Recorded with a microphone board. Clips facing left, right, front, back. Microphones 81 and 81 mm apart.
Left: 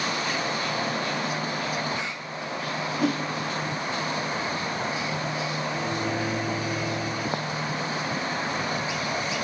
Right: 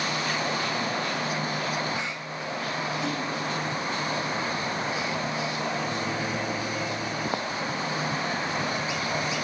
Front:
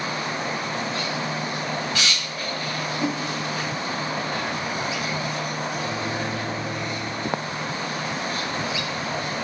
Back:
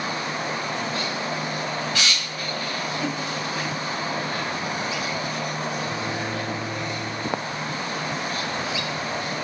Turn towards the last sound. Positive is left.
turn(degrees=90)